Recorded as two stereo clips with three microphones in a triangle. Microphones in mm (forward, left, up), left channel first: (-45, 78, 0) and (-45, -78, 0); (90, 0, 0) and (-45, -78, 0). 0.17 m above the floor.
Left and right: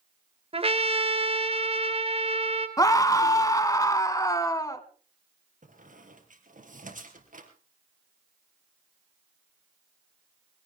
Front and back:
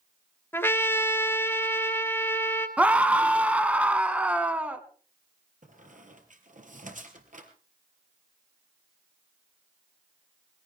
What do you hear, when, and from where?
0.5 s a trumpet: 45° right, 2 m
2.8 s a scream: 135° left, 1.2 m
5.6 s a squeak: 120° right, 3 m